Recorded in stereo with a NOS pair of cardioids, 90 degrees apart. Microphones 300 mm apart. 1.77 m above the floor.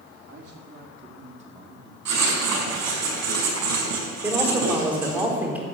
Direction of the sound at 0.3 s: 40° right.